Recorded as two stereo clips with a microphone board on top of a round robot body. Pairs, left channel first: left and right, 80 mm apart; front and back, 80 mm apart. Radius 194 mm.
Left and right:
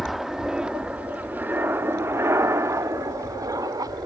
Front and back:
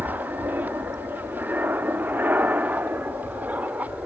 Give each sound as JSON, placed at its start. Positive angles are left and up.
{"t": 0.0, "sound": "an aircraft", "azimuth_deg": 180}